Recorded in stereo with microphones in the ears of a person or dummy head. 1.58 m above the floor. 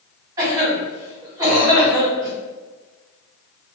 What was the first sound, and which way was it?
A cough, 15° right (ahead or behind).